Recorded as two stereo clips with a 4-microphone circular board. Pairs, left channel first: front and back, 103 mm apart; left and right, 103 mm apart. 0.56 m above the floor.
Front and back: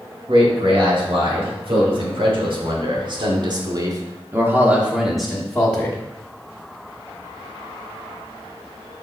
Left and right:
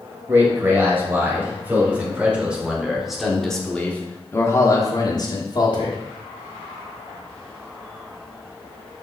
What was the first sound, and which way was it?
A man speaking, 155° right.